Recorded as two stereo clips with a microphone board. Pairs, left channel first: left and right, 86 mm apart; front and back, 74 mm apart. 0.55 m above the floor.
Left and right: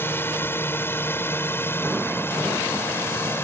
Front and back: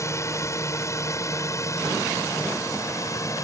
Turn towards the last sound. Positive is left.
turn(degrees=30)